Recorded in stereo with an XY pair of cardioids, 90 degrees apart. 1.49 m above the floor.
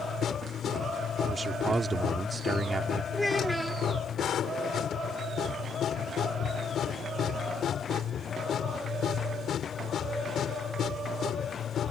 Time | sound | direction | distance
0.0 | a machine running | 70° left | ?
1.3 | a man speaking | 30° right | ?
3.1 | a child speaking | 15° left | ?